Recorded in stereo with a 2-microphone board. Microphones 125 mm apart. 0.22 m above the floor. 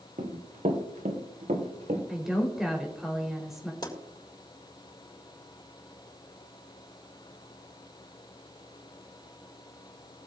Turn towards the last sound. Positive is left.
turn(degrees=35)  # may be behind; listen again after turning